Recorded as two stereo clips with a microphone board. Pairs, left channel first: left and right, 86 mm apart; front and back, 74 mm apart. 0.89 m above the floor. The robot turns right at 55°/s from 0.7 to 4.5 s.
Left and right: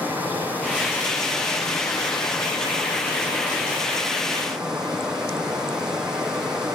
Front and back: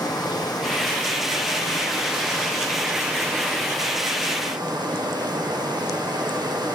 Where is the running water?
20° right, 6.5 m; by 6.8 s 170° right, 6.5 m.